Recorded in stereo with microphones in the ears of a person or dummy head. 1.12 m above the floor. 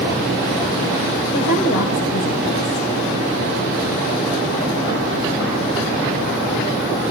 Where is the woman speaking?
75° left (ahead or behind), 4 m.